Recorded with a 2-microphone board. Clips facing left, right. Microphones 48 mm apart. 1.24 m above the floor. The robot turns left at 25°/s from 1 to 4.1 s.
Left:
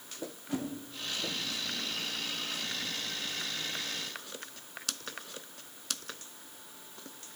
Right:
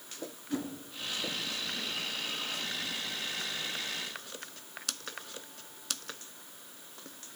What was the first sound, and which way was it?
A whoosh, 35° left (ahead or behind).